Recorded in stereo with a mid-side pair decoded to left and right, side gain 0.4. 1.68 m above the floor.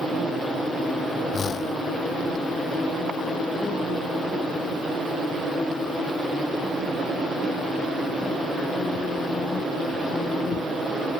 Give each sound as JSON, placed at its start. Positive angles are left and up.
{"t": 1.3, "sound": "a whoosh", "azimuth_deg": 55}